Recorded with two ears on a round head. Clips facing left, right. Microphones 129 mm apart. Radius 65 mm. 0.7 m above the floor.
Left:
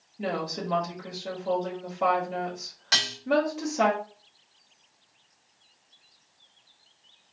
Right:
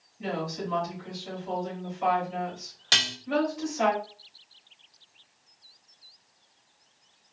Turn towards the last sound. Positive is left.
turn(degrees=-35)  # may be behind; listen again after turning